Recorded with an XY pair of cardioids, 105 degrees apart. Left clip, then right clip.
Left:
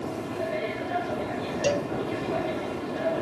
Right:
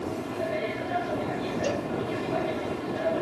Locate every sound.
0.0 s a machine running: straight ahead
1.6 s a cowbell: 35° left